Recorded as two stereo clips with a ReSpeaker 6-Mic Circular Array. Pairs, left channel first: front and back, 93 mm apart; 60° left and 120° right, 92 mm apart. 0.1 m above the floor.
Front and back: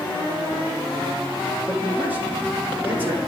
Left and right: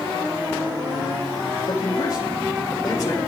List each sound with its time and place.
1.7 s a man speaking: 110° left, 5 m